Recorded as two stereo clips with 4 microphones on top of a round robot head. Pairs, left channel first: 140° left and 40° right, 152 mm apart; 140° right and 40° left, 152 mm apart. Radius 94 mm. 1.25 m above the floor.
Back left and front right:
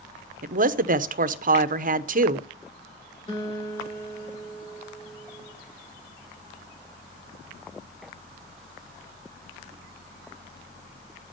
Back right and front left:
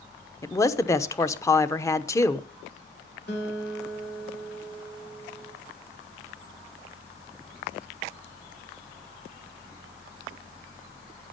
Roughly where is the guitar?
Behind.